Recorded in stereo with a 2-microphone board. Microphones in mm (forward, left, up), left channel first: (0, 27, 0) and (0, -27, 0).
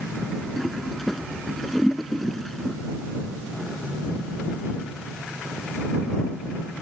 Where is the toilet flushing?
5° left (ahead or behind).